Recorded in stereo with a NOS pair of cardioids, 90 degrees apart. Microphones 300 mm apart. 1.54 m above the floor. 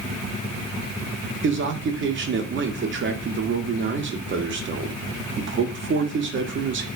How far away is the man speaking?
About 0.7 m.